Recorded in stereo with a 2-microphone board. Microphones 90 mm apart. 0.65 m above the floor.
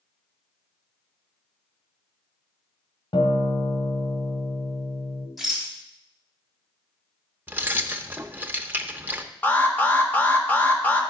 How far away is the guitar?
About 1.5 m.